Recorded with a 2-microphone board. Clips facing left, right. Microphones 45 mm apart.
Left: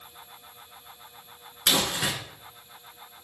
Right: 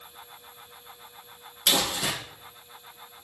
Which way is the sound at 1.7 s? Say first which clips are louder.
Even; 65° left (ahead or behind).